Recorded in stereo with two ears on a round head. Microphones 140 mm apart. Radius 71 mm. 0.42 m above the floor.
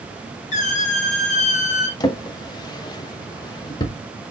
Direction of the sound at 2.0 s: 30° left (ahead or behind).